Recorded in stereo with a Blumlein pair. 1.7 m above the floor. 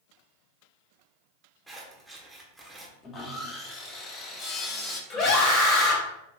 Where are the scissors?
5° right, 1.1 m.